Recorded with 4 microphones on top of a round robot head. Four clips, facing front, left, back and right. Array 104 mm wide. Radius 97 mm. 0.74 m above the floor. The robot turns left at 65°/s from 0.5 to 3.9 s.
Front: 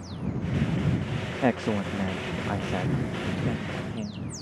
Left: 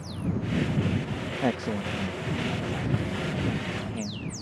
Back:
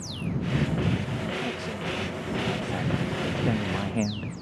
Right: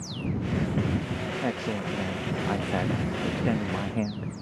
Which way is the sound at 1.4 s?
20° left.